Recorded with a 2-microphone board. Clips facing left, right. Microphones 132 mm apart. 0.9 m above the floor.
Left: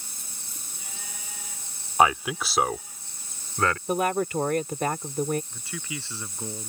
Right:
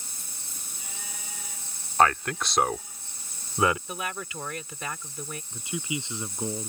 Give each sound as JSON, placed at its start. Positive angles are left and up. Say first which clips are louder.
{"t": 2.0, "sound": "a man speaking", "louder": "left 1 dB", "side_deg": 10}
{"t": 3.9, "sound": "a woman speaking", "louder": "left 11 dB", "side_deg": 50}
{"t": 5.5, "sound": "a man speaking", "louder": "right 4 dB", "side_deg": -20}